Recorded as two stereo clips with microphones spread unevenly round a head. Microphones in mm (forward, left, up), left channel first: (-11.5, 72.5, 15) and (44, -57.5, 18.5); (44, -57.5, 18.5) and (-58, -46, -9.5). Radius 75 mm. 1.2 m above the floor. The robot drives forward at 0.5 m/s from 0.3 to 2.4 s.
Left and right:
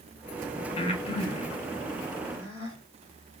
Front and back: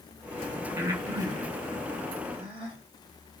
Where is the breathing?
135° left, 0.7 m; by 2.8 s 165° left, 1.3 m.